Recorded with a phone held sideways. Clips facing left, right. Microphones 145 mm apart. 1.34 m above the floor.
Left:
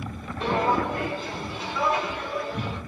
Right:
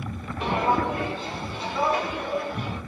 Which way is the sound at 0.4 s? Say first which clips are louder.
Even; 15° right (ahead or behind).